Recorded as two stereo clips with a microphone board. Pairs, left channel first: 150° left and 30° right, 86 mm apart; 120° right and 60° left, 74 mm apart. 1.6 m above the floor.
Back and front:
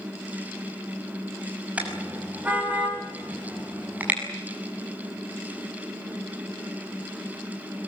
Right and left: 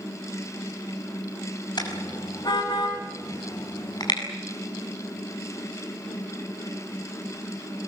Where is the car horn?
105° right, 5.5 m; by 4.2 s 100° right, 7 m.